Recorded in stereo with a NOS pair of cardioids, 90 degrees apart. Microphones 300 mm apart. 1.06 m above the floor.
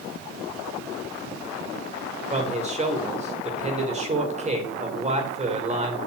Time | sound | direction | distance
2.3 | a man speaking | 20° right | 3.5 m